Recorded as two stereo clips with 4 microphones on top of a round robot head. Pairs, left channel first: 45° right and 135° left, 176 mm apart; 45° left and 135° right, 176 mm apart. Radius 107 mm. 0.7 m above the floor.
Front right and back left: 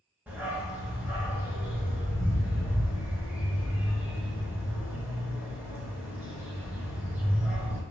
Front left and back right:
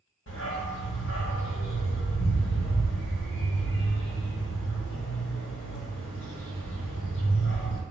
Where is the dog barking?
50° left, 1.3 m.